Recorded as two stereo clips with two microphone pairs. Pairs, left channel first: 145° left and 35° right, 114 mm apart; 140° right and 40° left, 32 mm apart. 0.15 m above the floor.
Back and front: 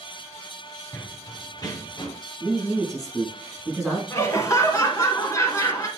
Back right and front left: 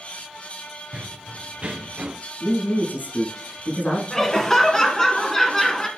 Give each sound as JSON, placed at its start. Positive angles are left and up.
{"t": 0.9, "sound": "running footsteps", "azimuth_deg": 75, "distance_m": 1.2}
{"t": 2.4, "sound": "a man speaking", "azimuth_deg": -125, "distance_m": 3.5}
{"t": 4.1, "sound": "laughter", "azimuth_deg": 160, "distance_m": 1.4}